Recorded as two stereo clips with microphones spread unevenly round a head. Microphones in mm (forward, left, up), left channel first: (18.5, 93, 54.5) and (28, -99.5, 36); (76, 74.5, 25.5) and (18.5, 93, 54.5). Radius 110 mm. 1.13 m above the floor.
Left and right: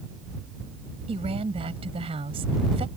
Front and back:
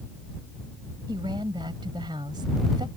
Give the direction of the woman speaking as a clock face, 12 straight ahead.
5 o'clock.